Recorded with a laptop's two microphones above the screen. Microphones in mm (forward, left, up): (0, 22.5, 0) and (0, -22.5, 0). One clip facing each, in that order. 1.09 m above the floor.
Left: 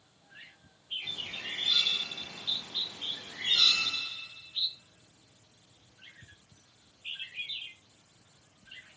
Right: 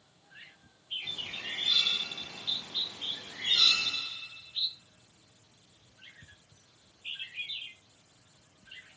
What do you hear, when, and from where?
1.0 s a bird: 10° left (ahead or behind), 0.9 m